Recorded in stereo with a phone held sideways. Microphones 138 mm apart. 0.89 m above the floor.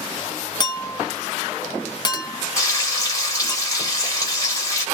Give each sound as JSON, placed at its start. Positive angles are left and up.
{"t": 0.6, "sound": "a clink", "side_deg": 30, "distance_m": 0.5}
{"t": 2.6, "sound": "frying", "side_deg": 25, "distance_m": 1.2}